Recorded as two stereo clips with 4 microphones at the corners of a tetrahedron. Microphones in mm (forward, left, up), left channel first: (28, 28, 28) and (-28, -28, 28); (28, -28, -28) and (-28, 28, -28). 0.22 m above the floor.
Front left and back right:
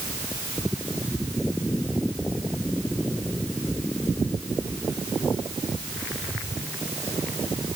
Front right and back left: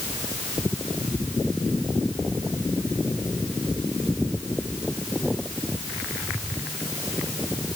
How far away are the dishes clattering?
No dishes clattering in this recording.